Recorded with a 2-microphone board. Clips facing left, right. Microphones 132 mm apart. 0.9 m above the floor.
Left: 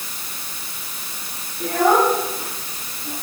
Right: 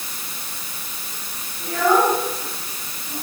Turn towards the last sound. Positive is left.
turn(degrees=45)  # may be behind; listen again after turning